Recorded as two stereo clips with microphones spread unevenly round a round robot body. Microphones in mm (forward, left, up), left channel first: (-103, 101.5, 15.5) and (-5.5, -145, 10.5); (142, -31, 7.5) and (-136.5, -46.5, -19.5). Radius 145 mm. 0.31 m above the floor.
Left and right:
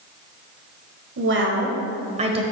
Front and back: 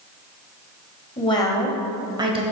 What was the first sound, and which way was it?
A woman speaking, 65° right.